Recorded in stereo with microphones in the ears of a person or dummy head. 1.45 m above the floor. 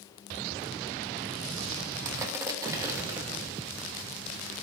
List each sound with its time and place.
2.0 s crushing: 20° right (ahead or behind), 1.1 m